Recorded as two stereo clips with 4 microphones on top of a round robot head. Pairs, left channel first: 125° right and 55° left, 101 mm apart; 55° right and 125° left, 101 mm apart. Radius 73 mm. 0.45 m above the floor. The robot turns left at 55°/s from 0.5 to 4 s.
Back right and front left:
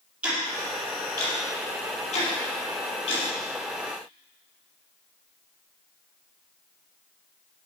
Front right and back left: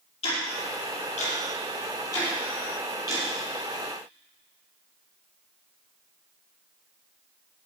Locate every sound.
0.2 s ticking: 25° right, 5.5 m; by 3.2 s 175° right, 5.5 m